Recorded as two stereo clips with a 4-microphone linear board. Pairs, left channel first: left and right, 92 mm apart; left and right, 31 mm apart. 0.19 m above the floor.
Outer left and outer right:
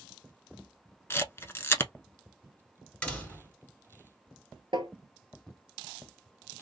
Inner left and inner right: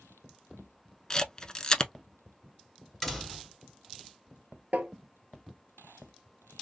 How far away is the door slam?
About 1.8 m.